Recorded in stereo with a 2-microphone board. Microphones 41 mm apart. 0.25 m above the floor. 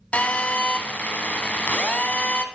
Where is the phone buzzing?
35° left (ahead or behind), 0.9 m.